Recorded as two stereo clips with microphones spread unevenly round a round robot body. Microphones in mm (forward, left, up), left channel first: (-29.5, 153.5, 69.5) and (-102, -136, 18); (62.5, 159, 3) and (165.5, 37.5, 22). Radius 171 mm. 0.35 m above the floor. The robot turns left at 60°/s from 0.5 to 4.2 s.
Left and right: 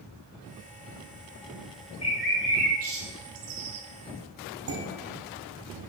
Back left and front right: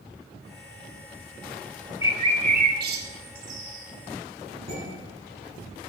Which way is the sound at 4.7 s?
115° right.